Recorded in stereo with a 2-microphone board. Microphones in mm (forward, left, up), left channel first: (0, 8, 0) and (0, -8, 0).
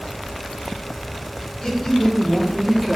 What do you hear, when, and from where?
1.6 s a man speaking: 35° left (ahead or behind), 2 m; by 3.0 s 20° right (ahead or behind), 1.6 m